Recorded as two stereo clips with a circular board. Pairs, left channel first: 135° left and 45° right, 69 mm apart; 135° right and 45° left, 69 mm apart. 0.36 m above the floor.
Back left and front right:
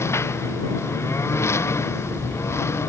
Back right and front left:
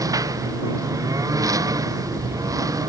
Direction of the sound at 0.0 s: 80° left.